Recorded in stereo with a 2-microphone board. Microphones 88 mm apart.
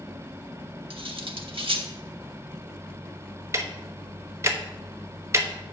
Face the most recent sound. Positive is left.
turn(degrees=-30)  # may be behind; listen again after turning